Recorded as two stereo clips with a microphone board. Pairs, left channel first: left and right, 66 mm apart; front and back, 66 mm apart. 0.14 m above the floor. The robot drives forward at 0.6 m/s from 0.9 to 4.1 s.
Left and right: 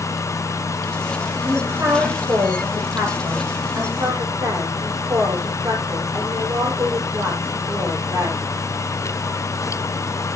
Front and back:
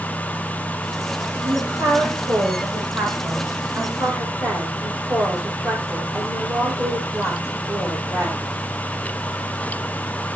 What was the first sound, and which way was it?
A woman speaking, 140° right.